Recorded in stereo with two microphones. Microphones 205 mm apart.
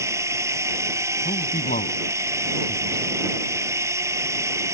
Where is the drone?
15° right (ahead or behind).